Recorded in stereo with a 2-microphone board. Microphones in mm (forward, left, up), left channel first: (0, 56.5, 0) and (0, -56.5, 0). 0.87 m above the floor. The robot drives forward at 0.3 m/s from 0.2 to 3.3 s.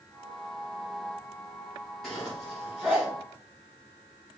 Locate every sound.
2.0 s a zipper: 5° left (ahead or behind), 1.9 m